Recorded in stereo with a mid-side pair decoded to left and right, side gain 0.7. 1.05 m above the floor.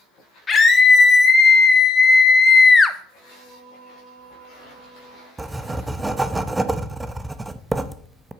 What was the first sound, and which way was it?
A scream, 25° left.